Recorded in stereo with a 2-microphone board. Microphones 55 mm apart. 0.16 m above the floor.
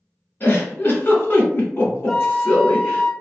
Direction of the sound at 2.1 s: 15° left (ahead or behind).